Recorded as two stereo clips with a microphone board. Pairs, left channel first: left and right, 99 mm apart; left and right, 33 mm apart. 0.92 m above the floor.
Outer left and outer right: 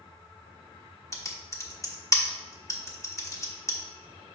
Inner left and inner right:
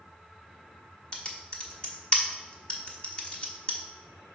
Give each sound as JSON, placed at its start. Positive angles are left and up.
{"t": 1.1, "sound": "typing on a keyboard", "side_deg": 30, "distance_m": 1.0}